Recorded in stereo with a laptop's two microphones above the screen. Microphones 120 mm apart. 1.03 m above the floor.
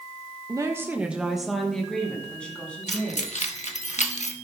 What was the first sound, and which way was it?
A woman speaking, 30° right (ahead or behind).